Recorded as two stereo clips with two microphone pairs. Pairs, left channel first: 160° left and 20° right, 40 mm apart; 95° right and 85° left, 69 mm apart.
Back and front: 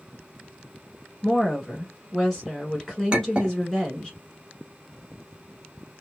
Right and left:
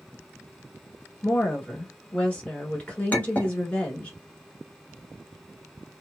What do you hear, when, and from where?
1.2 s a woman speaking: 135° right, 1.2 m
3.1 s a clink: 50° right, 0.9 m